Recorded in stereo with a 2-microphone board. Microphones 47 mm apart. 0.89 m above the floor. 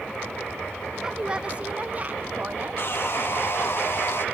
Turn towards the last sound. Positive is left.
turn(degrees=55)  # may be behind; listen again after turning